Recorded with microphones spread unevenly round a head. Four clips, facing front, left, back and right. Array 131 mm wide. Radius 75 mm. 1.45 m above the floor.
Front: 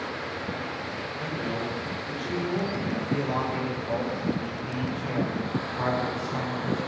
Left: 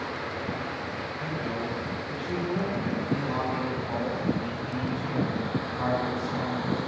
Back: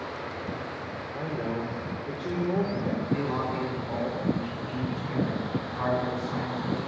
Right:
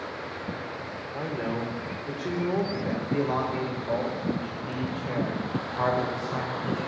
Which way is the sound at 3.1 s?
70° right.